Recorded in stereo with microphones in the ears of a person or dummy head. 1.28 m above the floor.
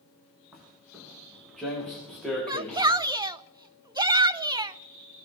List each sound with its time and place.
0.5 s footsteps: centre (ahead or behind), 7 m; by 3.0 s 10° left (ahead or behind), 7.5 m
2.5 s a shout: 20° right (ahead or behind), 0.7 m